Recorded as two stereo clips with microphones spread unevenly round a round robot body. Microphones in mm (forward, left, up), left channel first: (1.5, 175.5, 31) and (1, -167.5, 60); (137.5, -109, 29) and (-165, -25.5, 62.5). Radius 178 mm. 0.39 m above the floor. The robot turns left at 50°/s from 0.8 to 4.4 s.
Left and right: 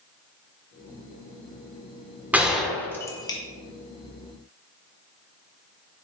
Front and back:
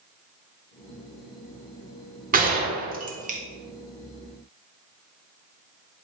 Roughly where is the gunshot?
Behind.